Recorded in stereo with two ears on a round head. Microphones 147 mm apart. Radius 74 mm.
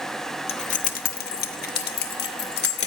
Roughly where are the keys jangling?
Left.